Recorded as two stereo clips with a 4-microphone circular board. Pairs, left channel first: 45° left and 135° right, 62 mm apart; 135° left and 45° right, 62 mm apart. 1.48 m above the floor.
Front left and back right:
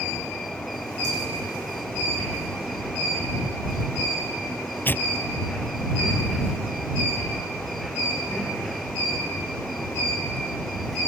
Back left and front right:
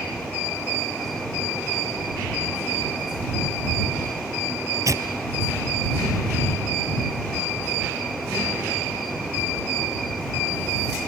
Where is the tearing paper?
15° right.